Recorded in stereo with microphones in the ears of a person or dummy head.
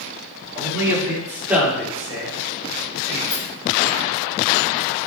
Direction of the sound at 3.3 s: 5° left (ahead or behind).